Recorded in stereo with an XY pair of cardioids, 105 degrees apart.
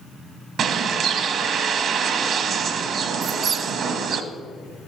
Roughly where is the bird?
Ahead right.